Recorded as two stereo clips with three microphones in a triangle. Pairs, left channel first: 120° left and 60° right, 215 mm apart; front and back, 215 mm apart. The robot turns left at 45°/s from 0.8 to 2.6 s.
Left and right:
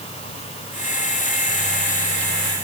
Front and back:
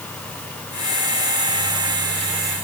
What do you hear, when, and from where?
Only background noise.